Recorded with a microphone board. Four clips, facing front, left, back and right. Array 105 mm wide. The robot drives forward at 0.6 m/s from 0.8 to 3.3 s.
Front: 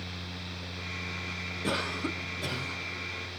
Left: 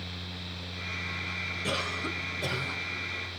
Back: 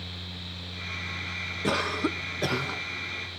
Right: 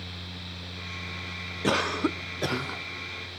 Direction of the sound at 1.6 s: 105° right.